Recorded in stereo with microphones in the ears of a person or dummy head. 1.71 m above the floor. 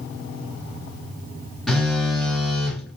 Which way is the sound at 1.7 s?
5° left (ahead or behind).